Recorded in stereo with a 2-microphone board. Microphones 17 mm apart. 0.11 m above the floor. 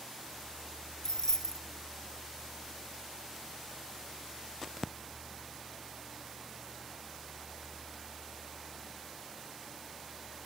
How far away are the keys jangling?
About 0.9 m.